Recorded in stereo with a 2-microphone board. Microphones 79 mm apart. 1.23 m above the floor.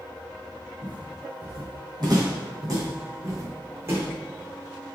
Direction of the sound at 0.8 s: 65° right (ahead or behind).